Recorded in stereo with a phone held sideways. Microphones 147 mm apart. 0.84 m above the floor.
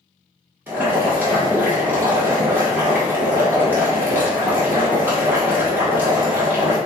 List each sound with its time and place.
0.7 s boiling: 15° right (ahead or behind), 1.8 m